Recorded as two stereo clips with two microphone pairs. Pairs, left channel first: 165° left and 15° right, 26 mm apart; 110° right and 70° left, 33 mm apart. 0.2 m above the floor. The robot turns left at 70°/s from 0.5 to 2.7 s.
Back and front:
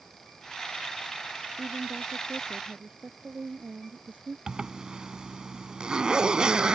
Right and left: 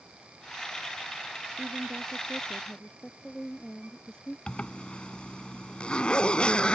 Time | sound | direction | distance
1.6 | a woman speaking | 35° left | ?
4.5 | a zipper | 60° right | ?